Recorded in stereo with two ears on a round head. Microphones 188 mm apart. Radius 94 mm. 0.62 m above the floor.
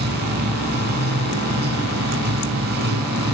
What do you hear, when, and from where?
0.0 s running water: 55° right (ahead or behind)